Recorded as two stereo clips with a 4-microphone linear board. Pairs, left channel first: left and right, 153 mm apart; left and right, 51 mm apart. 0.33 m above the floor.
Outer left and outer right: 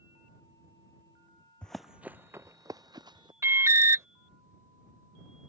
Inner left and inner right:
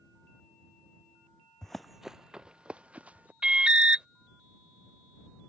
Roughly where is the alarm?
Centre.